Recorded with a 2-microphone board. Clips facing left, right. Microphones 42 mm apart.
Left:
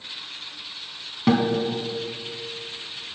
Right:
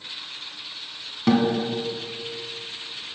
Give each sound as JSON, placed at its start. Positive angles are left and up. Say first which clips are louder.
{"t": 1.3, "sound": "a guitar", "louder": "even", "side_deg": 10, "distance_m": 1.4}